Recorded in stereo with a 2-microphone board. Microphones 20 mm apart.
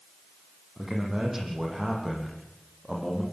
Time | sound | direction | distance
0.8 | a man speaking | 20° right (ahead or behind) | 9.5 m